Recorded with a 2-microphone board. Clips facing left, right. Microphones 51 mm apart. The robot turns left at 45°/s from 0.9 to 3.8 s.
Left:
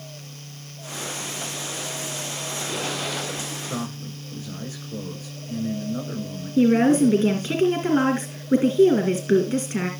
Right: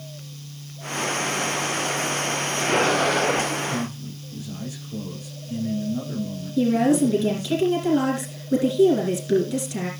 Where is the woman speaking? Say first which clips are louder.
Left 2 dB; 40° left (ahead or behind), 2 m.